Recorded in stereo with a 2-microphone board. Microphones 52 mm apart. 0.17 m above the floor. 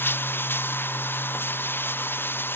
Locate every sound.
0.0 s running water: 40° left (ahead or behind)